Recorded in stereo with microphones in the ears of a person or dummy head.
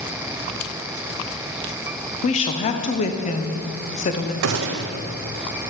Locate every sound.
2.2 s a woman speaking: 35° left (ahead or behind), 0.7 m
4.4 s a gunshot: 60° right (ahead or behind), 0.7 m